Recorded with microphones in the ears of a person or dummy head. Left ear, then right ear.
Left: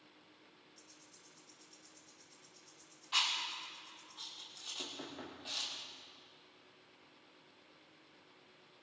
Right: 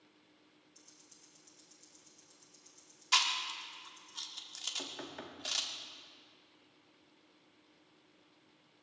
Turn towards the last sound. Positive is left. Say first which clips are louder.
# right 1 dB
turn(degrees=-70)  # may be behind; listen again after turning